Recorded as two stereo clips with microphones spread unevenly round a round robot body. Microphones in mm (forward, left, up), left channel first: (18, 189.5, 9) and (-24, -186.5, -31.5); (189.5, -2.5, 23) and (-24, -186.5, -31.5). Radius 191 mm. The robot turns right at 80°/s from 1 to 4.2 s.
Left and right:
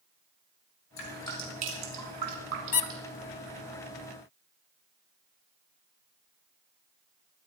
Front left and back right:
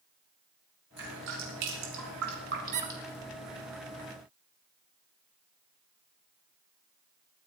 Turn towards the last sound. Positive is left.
turn(degrees=-95)